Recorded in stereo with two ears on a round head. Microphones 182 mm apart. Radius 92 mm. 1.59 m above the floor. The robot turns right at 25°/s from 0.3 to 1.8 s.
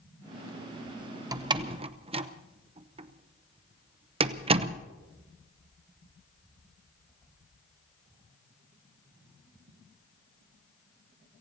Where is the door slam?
20° right (ahead or behind), 0.7 m; by 4.8 s 30° right (ahead or behind), 0.7 m.